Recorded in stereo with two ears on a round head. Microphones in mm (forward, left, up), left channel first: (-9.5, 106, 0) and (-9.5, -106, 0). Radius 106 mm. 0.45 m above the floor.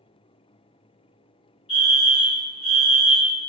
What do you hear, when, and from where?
1.7 s a fire alarm: 25° left (ahead or behind), 1.9 m